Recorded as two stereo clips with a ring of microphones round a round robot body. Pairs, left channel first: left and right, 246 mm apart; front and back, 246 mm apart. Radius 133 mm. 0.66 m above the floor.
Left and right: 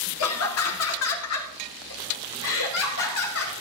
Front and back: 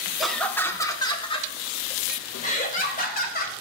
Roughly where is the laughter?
Left.